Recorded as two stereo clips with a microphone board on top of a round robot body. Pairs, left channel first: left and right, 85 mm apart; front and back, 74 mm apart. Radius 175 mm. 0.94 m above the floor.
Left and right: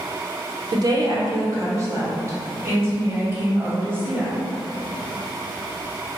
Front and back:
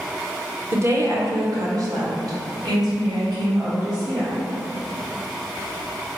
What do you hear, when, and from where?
0.7 s a woman speaking: 125° right, 0.9 m; by 4.3 s 155° right, 2.5 m